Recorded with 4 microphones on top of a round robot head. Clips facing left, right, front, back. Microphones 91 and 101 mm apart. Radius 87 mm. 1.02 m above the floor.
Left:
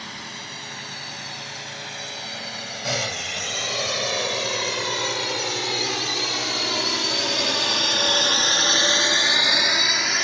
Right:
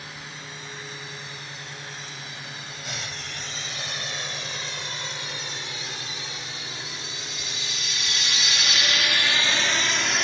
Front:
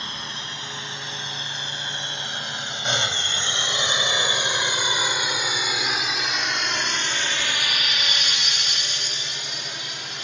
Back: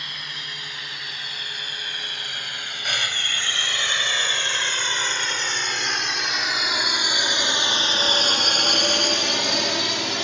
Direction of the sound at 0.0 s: 60° left.